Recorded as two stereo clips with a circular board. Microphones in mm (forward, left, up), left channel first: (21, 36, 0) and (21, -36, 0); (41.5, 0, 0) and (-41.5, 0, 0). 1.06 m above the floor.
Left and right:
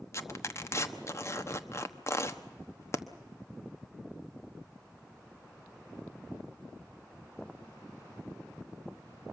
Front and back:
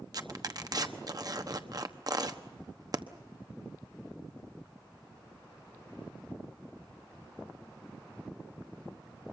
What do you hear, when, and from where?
0.1 s tearing paper: 140° left, 1.1 m